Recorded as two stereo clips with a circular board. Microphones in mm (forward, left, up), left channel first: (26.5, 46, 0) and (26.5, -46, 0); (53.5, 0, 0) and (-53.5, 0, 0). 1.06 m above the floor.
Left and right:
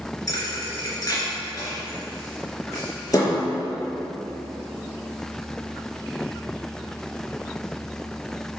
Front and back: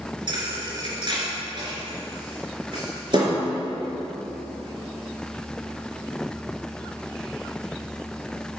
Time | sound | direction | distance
0.3 | a thud | 140° left | 3 m